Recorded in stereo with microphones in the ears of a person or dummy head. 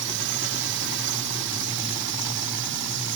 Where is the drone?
65° right (ahead or behind).